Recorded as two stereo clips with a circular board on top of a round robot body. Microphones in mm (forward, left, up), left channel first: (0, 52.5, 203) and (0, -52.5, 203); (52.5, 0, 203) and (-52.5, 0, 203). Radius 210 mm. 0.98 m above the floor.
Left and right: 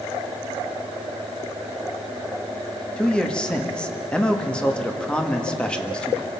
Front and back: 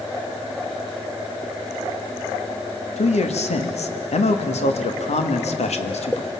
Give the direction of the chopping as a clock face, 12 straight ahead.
I don't hear chopping.